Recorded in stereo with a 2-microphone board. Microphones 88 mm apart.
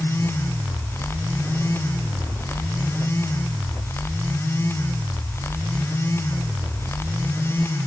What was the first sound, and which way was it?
Only background noise.